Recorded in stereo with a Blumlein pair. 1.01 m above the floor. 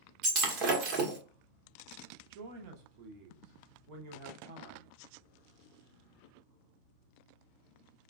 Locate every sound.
0.2 s breaking glass: 35° right, 1.0 m
2.3 s a man speaking: 45° right, 0.9 m